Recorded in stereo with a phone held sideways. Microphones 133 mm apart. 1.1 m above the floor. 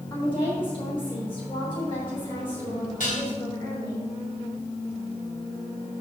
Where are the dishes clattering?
85° left, 3 m.